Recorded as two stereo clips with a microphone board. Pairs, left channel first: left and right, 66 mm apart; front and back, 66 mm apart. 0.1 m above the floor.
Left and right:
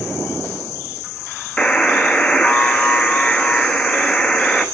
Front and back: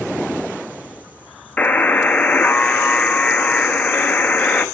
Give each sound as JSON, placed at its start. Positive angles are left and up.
{"t": 1.6, "sound": "a buzzer", "azimuth_deg": 30, "distance_m": 0.8}